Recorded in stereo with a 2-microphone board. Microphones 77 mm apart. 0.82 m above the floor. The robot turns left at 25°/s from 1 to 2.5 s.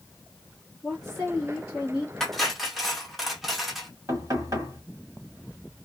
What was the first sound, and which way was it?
A woman speaking, centre (ahead or behind).